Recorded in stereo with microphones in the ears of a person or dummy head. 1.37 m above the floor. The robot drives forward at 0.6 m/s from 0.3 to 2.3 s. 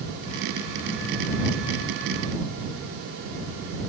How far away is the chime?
No chime in this recording.